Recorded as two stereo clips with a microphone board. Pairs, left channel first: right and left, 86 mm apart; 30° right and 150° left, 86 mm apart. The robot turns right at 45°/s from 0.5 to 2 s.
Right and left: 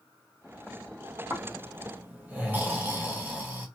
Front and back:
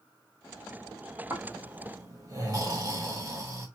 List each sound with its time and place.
1.3 s snoring: 110° left, 1.2 m; by 3.7 s 140° left, 1.2 m